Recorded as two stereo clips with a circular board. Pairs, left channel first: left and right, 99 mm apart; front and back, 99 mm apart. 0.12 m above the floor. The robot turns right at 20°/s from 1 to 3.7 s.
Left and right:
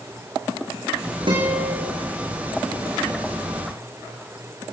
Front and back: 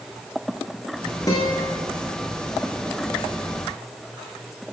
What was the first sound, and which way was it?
A guitar, 50° right.